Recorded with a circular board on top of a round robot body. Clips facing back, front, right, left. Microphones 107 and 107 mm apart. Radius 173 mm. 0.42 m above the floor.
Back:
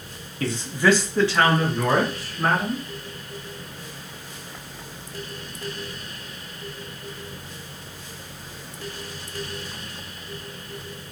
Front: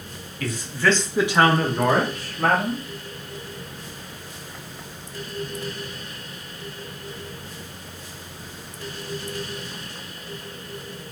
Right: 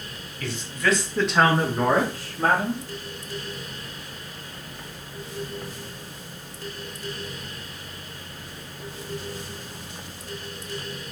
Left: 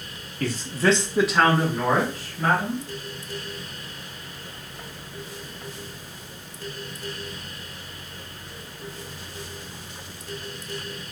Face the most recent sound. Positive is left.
turn(degrees=-40)